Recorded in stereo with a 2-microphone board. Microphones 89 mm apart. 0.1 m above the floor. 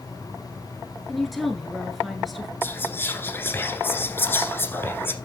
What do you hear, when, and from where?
1.1 s a woman speaking: centre (ahead or behind), 1.1 m
2.6 s whispering: 25° left (ahead or behind), 1.4 m